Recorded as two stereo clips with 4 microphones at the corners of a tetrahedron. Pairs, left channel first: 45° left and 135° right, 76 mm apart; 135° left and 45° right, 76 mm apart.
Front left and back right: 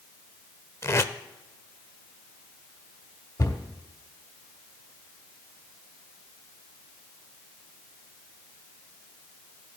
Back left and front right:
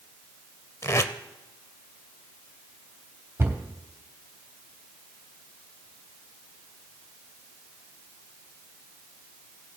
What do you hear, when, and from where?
0.8 s tape being pulled: 95° left, 0.6 m
3.4 s a cupboard door: 10° left, 1.5 m